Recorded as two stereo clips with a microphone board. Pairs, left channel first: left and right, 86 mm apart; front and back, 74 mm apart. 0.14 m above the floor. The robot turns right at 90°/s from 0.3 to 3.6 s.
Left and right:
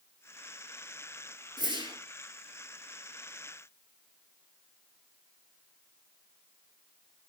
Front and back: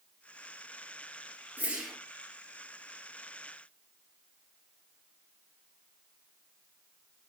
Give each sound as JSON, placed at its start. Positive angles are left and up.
{"t": 1.6, "sound": "a whoosh", "azimuth_deg": -120, "distance_m": 1.9}